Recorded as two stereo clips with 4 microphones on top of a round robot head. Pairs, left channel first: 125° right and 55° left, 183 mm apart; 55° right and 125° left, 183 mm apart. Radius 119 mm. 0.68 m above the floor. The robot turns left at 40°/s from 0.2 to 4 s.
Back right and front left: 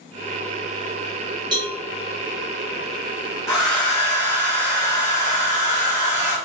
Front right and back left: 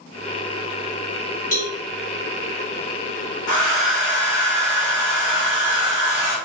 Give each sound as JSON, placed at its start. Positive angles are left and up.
{"t": 1.5, "sound": "a cowbell", "azimuth_deg": -10, "distance_m": 1.6}
{"t": 3.5, "sound": "a hair dryer", "azimuth_deg": -50, "distance_m": 2.0}